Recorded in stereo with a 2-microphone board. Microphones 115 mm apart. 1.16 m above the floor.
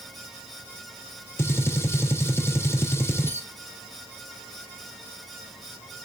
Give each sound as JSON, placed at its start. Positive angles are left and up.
{"t": 1.4, "sound": "a gunshot", "side_deg": 20, "distance_m": 0.5}